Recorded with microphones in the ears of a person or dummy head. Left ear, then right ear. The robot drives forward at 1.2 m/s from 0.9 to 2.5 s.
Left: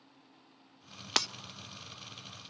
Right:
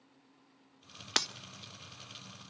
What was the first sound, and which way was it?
Breaking glass, 15° left (ahead or behind).